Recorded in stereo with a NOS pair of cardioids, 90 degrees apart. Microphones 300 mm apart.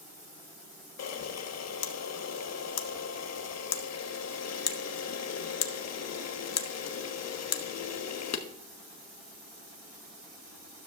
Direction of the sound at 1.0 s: 60° left.